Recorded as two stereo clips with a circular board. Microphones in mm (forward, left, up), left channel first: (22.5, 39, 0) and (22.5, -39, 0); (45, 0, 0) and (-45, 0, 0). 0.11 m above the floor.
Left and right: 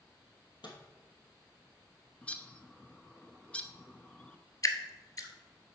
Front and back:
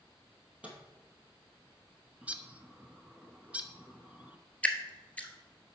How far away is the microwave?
About 2 m.